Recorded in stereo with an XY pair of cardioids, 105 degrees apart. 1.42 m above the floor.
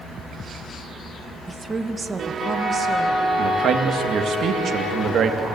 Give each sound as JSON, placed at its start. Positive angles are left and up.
{"t": 1.5, "sound": "a woman speaking", "azimuth_deg": -20, "distance_m": 1.5}
{"t": 3.4, "sound": "a man speaking", "azimuth_deg": -60, "distance_m": 2.0}